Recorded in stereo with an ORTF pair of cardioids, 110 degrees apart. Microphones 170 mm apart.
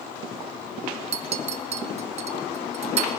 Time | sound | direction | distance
1.1 | a clink | 40° right | 1.1 m